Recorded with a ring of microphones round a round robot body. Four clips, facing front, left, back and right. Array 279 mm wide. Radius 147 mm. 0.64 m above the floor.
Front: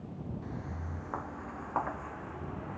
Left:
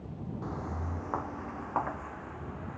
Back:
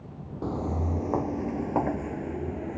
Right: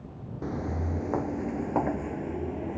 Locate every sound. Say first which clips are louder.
0.4 s footsteps: right 8 dB, back 12 dB; 155° right; by 2.8 s 130° right